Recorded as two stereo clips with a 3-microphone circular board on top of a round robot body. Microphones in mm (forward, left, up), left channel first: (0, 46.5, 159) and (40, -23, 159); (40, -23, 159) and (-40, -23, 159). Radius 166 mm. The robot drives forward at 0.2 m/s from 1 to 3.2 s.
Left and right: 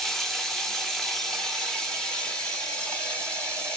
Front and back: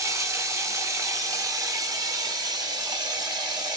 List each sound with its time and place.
0.0 s running water: 155° right, 1.1 m; by 3.8 s 165° right, 1.3 m